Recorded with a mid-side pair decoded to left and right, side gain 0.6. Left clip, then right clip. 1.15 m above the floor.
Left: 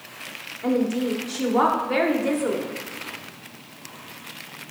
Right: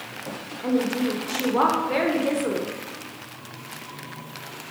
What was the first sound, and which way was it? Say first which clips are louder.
A woman speaking: left 1 dB; 5° left.